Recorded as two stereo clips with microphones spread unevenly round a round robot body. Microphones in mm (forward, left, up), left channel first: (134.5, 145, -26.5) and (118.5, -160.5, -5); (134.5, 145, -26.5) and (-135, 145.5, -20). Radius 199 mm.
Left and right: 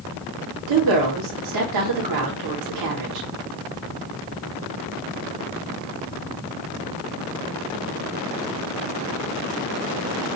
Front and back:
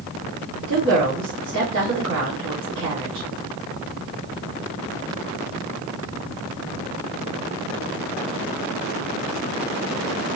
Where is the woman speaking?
120° right, 1.9 m.